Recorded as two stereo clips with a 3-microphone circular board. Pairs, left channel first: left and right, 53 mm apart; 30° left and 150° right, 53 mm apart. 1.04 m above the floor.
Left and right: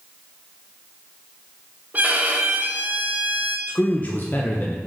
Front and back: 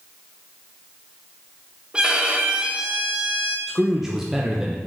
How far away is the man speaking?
About 0.6 m.